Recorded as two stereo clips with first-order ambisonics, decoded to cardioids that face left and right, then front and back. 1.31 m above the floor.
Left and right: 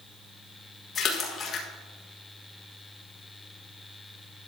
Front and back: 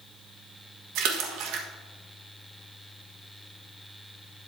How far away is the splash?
About 1.5 m.